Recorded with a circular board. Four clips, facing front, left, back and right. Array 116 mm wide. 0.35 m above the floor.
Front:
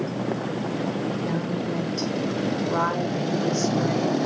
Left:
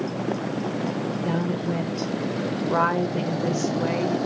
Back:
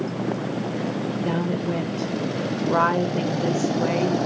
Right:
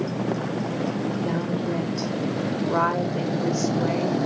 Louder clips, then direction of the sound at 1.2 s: Even, back 2 dB; 165° left.